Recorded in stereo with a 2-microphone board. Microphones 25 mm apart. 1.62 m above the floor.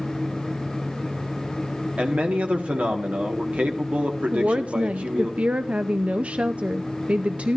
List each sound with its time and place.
2.0 s a man speaking: 80° right, 1.6 m
4.3 s a woman speaking: 65° right (ahead or behind), 0.6 m